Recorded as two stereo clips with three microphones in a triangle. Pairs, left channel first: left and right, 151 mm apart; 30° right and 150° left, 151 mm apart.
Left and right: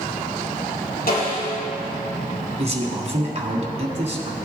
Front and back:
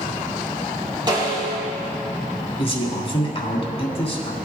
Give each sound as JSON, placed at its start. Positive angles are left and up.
{"t": 1.1, "sound": "a snare drum", "azimuth_deg": 90, "distance_m": 3.5}
{"t": 2.6, "sound": "a man speaking", "azimuth_deg": -65, "distance_m": 1.5}